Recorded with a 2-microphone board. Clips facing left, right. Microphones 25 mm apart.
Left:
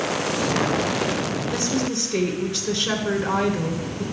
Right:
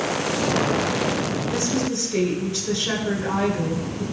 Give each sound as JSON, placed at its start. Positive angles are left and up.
{"t": 1.5, "sound": "a woman speaking", "side_deg": 25, "distance_m": 1.9}